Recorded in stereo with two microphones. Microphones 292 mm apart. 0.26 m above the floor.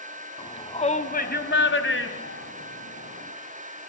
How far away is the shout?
About 2.5 m.